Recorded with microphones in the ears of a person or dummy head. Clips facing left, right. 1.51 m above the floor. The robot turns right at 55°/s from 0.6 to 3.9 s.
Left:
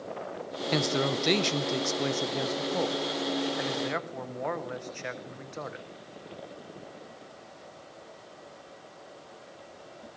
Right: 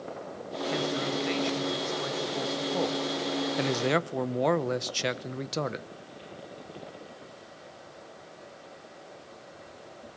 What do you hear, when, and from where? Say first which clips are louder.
0.7 s a man speaking: left 3 dB; 65° left, 0.8 m; by 5.9 s 120° right, 0.8 m